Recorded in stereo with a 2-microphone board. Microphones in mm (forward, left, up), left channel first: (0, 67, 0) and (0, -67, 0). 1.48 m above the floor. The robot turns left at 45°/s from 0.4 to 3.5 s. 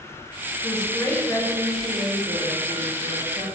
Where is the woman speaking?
40° left, 0.8 m; by 3.5 s 85° right, 0.8 m.